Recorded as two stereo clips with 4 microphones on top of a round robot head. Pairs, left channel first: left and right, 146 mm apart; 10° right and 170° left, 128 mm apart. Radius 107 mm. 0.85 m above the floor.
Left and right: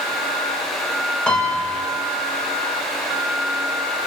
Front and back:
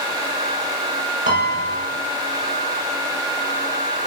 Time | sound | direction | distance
1.3 | a piano | 175° left | 4 m